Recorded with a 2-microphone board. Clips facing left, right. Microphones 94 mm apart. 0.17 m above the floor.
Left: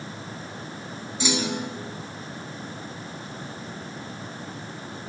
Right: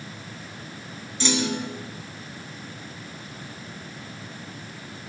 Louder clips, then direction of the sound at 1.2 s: Right 1 dB; 10° left (ahead or behind).